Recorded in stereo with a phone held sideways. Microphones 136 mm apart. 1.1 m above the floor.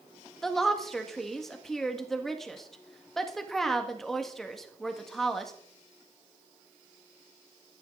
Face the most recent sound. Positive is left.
turn(degrees=0)  # may be behind; listen again after turning